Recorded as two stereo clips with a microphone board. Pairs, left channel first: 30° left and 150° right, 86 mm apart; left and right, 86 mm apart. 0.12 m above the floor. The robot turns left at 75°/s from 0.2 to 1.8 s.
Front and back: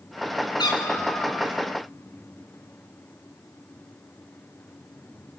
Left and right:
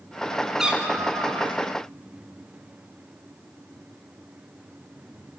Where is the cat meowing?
5° right, 4.5 m; by 1.6 s 80° right, 4.5 m.